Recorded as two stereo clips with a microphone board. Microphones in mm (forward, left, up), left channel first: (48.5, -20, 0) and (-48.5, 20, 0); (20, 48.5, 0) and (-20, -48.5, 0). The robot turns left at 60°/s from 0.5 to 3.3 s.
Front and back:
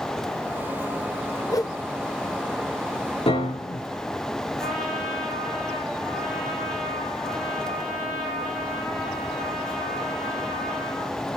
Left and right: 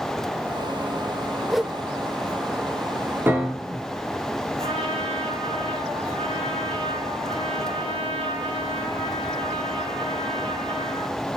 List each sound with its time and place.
1.5 s a whoosh: 25° right, 0.8 m; by 1.8 s 40° right, 0.8 m
3.3 s a piano: 40° right, 3 m; by 3.9 s 45° right, 3 m
4.6 s a trumpet: 110° right, 9.5 m